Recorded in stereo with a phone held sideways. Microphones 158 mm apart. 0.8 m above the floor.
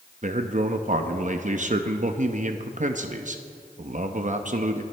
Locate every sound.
0.2 s a man speaking: 50° right (ahead or behind), 0.7 m